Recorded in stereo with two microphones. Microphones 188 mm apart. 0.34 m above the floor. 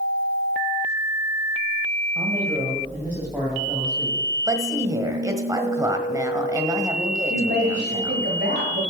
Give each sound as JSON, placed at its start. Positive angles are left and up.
{"t": 2.1, "sound": "a man speaking", "side_deg": -20, "distance_m": 2.0}
{"t": 4.5, "sound": "a woman speaking", "side_deg": -20, "distance_m": 1.3}
{"t": 7.3, "sound": "a woman speaking", "side_deg": -50, "distance_m": 1.9}